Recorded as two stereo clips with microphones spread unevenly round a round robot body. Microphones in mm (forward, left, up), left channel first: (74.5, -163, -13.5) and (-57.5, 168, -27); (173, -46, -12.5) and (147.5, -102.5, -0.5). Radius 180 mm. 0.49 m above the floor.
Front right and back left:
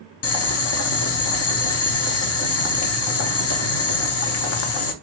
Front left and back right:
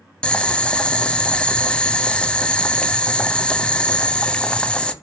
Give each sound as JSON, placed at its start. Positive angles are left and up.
{"t": 0.2, "sound": "boiling", "azimuth_deg": -15, "distance_m": 0.6}